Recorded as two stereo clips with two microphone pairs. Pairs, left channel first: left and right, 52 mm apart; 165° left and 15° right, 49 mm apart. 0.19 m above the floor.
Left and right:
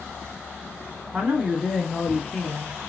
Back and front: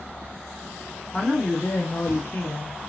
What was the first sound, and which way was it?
A man speaking, 150° right.